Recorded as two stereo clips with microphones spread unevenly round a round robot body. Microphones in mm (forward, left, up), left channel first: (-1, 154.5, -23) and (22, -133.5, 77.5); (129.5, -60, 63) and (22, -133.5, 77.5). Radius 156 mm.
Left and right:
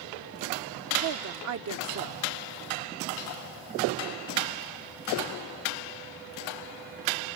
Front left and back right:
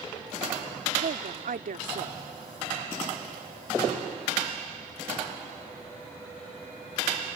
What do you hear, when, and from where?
1.0 s a woman speaking: 135° right